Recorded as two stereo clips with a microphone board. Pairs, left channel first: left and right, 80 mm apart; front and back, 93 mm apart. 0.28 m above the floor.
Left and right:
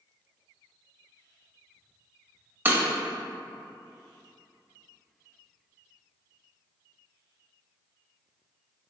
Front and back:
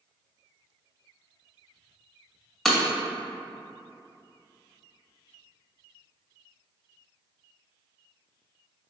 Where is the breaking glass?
85° right, 0.6 m.